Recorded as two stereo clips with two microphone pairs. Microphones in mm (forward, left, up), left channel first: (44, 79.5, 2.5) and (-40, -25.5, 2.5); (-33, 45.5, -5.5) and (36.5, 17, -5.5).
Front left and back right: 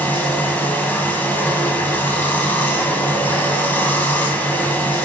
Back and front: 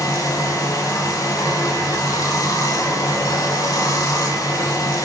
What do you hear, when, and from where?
0.0 s running water: 125° left, 0.8 m